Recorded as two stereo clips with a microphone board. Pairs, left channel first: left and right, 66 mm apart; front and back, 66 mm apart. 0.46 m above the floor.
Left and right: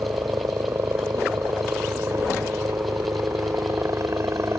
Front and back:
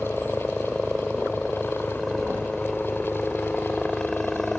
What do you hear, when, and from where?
0.0 s a helicopter: 80° right